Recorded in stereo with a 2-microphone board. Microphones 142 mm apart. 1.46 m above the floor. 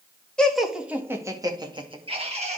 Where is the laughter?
5° left (ahead or behind), 2.0 m; by 2.6 s 50° right (ahead or behind), 2.5 m.